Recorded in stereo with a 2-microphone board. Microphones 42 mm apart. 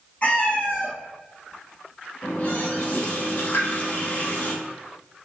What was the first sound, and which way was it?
A cat meowing, 40° left (ahead or behind).